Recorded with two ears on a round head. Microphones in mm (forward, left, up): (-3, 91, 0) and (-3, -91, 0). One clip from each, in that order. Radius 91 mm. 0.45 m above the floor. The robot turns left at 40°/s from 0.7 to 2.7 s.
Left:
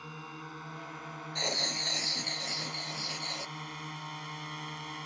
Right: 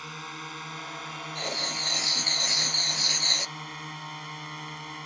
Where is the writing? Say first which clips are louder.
Right 1 dB; 10° left; by 3.5 s 40° right.